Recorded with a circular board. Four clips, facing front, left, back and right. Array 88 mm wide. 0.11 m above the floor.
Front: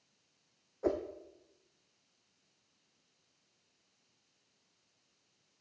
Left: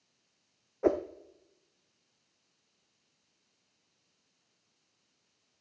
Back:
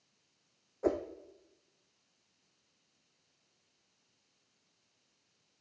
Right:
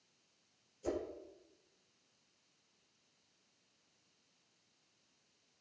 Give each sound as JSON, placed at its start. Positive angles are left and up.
{"t": 0.8, "sound": "a whoosh", "azimuth_deg": 95, "distance_m": 1.4}